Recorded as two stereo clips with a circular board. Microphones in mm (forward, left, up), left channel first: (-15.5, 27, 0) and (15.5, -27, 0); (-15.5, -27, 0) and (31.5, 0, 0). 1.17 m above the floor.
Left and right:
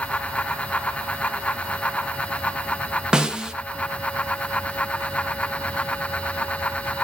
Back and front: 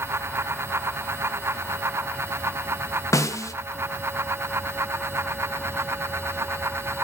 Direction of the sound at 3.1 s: 135° right.